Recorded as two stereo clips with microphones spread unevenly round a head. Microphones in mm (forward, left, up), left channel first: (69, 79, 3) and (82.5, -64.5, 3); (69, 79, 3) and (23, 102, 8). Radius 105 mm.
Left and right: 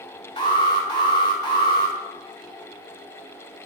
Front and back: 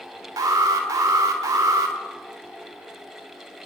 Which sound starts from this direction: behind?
An alarm, at 0.4 s.